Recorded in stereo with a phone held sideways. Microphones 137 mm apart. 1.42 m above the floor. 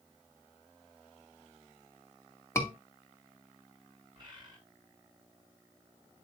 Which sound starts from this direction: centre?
A scream, at 2.5 s.